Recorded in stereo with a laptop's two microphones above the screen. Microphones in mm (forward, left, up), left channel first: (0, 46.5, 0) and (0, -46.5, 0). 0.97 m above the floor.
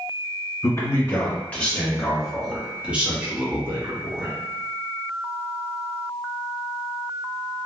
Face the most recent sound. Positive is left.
turn(degrees=-30)  # may be behind; listen again after turning